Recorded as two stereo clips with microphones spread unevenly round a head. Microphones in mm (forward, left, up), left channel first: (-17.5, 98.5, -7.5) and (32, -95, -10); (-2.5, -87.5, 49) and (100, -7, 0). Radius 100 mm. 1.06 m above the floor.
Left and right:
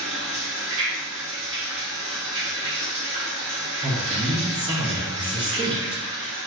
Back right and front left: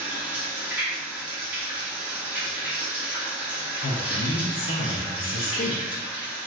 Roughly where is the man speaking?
Behind.